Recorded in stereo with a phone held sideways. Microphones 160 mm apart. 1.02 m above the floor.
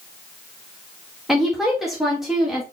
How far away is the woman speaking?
About 1.2 m.